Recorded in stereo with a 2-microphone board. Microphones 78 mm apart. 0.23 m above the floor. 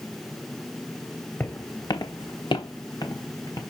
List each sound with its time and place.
1.4 s footsteps: 25° left (ahead or behind), 1.2 m; by 3.6 s 45° left (ahead or behind), 2 m